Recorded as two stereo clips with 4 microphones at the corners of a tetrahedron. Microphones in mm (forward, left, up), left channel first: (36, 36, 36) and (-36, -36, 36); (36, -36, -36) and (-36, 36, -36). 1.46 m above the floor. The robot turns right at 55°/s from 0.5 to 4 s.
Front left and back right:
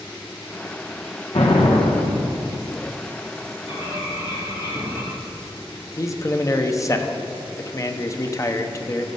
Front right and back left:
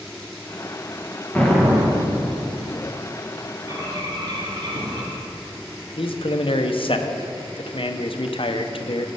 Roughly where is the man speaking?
Ahead.